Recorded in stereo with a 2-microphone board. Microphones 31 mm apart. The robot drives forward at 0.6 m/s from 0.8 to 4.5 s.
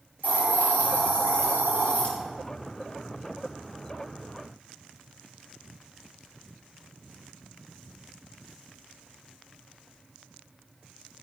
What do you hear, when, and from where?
0.2 s a hiss: 45° left (ahead or behind), 4 m; by 2.1 s 40° left (ahead or behind), 4.5 m